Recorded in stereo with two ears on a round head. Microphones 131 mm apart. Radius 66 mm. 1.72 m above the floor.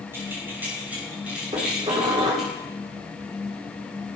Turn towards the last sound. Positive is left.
turn(degrees=-35)  # may be behind; listen again after turning